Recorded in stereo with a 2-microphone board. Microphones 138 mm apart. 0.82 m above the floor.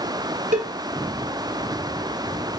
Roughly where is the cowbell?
Right.